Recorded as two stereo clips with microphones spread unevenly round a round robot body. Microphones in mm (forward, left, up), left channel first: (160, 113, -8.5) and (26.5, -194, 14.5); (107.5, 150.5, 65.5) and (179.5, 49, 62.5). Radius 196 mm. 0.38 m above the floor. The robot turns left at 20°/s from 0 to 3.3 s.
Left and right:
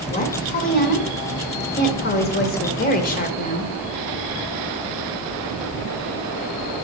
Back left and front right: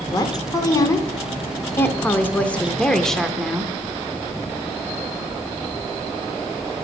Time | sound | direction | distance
0.1 | a woman speaking | 100° left | 1.0 m